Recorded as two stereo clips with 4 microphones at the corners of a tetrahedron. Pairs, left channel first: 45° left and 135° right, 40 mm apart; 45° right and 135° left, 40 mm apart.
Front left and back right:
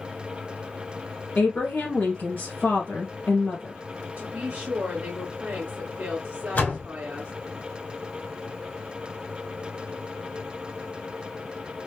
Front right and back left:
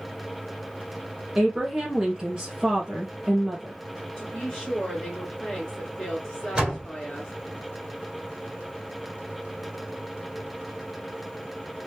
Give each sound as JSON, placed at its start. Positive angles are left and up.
{"t": 1.4, "sound": "a woman speaking", "azimuth_deg": 60, "distance_m": 2.0}
{"t": 4.2, "sound": "a woman speaking", "azimuth_deg": -125, "distance_m": 1.6}
{"t": 6.5, "sound": "a door slam", "azimuth_deg": 80, "distance_m": 1.6}